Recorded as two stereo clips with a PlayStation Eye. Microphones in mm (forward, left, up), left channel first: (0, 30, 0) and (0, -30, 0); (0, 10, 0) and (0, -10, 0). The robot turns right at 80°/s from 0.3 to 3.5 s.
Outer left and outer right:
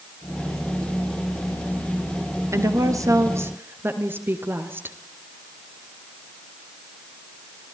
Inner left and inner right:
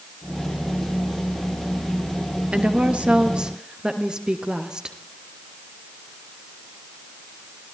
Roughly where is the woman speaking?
Behind right.